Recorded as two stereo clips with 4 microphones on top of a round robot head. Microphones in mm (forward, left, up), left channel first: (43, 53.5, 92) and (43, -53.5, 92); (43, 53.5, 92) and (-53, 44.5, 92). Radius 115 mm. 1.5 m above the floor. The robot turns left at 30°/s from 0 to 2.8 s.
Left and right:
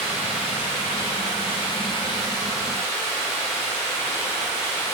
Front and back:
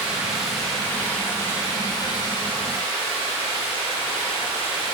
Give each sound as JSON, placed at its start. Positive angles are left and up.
{"t": 0.0, "sound": "running water", "azimuth_deg": 110, "distance_m": 1.5}